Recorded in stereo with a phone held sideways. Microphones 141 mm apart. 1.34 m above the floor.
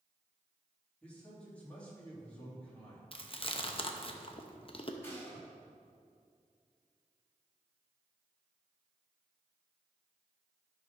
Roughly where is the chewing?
Left.